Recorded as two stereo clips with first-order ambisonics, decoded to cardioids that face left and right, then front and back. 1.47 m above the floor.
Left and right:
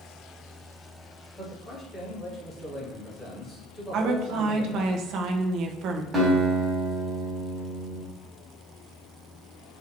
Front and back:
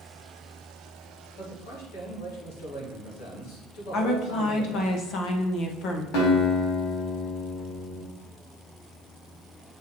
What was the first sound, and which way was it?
A man speaking, 5° left.